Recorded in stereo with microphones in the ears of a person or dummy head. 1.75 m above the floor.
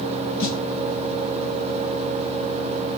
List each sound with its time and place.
0.4 s a snare drum: 75° left (ahead or behind), 1.3 m